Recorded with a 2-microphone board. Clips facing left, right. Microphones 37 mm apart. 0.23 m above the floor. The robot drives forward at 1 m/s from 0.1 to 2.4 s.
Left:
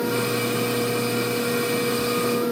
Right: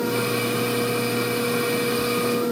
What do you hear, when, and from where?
Only background noise.